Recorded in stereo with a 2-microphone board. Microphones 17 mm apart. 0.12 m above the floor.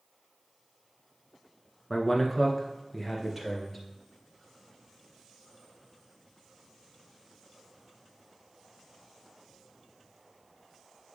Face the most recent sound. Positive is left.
turn(degrees=-5)  # may be behind; listen again after turning